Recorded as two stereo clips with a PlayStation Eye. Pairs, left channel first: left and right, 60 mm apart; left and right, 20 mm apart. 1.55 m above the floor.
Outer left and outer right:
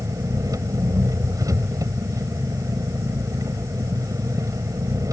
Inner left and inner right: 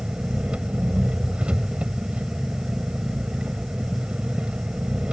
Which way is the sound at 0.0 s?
70° right (ahead or behind).